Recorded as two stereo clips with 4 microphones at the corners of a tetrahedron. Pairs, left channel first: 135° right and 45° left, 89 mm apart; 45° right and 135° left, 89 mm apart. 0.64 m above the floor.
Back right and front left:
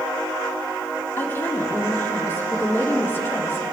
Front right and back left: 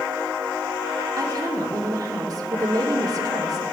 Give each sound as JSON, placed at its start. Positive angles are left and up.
{"t": 1.2, "sound": "a woman speaking", "azimuth_deg": 165, "distance_m": 1.7}